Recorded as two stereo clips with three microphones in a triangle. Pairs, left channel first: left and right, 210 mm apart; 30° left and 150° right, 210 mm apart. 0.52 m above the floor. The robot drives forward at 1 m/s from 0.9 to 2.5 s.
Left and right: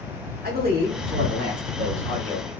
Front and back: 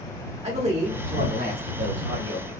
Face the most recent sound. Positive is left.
turn(degrees=-150)